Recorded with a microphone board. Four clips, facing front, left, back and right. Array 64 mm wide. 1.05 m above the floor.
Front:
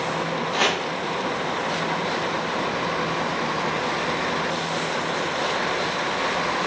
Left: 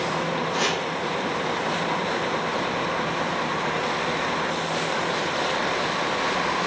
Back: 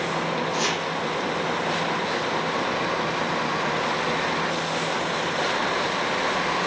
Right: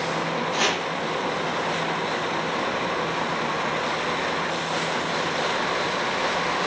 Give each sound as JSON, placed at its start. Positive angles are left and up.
{"t": 0.5, "sound": "chopping", "azimuth_deg": -20, "distance_m": 0.8}